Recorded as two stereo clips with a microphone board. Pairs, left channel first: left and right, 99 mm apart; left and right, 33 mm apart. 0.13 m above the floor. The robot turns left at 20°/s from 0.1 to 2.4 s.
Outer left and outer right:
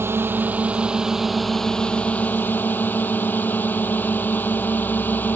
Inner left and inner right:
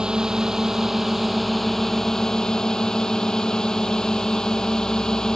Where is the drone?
155° right; by 5.4 s 160° left.